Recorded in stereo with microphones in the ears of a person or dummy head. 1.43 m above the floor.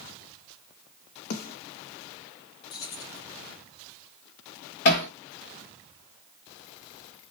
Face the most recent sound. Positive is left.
turn(degrees=45)  # may be behind; listen again after turning